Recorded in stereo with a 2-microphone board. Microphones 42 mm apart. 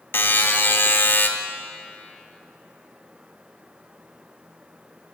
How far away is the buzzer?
About 0.8 m.